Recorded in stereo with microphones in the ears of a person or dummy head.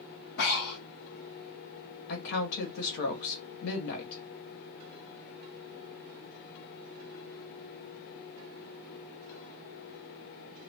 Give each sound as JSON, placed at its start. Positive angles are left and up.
{"t": 0.4, "sound": "breathing", "side_deg": 60, "distance_m": 1.5}
{"t": 2.1, "sound": "a woman speaking", "side_deg": 65, "distance_m": 1.4}